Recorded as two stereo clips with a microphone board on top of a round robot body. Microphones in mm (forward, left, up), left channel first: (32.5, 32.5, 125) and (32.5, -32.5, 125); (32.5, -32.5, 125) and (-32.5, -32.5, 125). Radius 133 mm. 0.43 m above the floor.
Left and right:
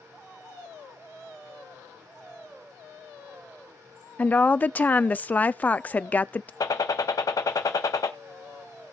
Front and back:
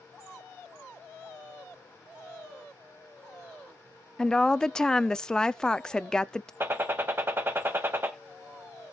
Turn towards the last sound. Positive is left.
turn(degrees=120)